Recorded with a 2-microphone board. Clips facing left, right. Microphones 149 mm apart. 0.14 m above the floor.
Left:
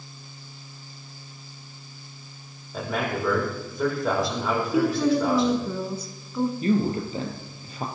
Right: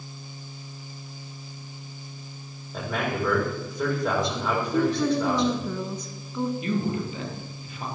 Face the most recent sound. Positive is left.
turn(degrees=35)  # may be behind; listen again after turning